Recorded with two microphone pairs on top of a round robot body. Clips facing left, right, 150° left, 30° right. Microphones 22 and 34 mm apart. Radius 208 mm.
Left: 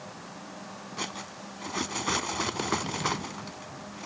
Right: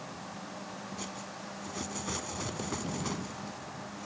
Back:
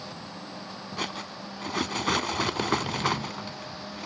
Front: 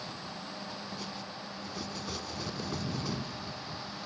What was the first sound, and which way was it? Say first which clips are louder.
Cutlery clinking: left 4 dB, back 7 dB; 130° left.